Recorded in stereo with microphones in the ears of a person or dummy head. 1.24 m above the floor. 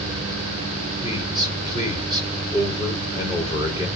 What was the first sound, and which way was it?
A man speaking, 25° right (ahead or behind).